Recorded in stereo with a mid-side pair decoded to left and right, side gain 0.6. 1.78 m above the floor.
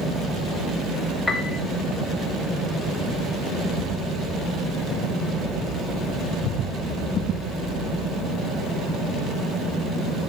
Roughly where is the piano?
Ahead.